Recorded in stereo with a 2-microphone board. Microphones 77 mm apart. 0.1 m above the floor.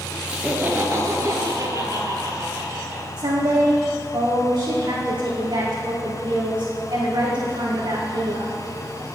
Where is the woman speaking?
75° right (ahead or behind), 4.5 m.